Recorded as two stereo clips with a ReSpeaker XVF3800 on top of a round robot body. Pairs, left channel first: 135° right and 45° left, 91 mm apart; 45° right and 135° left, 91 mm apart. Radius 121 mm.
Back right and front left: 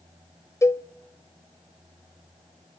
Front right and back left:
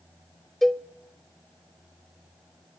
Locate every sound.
0.6 s a cowbell: 130° right, 0.9 m